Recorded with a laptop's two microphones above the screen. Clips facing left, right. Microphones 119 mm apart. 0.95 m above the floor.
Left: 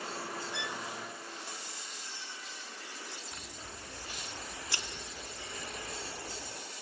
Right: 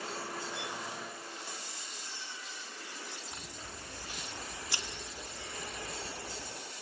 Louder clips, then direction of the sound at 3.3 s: Right 1 dB; 20° right (ahead or behind).